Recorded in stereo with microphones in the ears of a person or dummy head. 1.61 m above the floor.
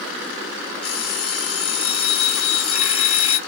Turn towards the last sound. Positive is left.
turn(degrees=80)